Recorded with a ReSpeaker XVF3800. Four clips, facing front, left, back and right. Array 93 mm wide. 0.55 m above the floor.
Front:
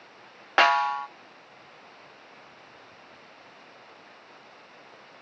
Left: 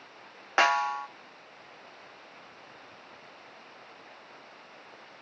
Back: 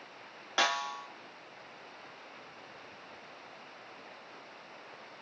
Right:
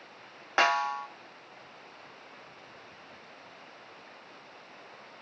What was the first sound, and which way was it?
A snare drum, 5° left.